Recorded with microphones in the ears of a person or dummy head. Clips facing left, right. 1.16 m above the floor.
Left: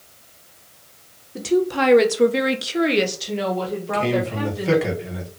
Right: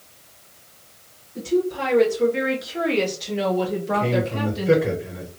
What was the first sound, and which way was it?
A woman speaking, 70° left (ahead or behind).